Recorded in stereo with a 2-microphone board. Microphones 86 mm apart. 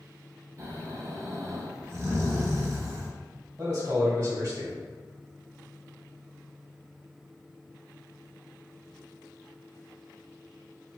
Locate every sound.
0.6 s snoring: 40° right (ahead or behind), 1.0 m
3.6 s a man speaking: 40° right (ahead or behind), 1.7 m